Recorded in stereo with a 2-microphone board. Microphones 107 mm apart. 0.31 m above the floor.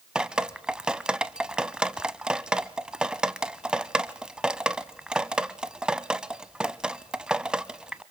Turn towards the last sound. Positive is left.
turn(degrees=-10)  # may be behind; listen again after turning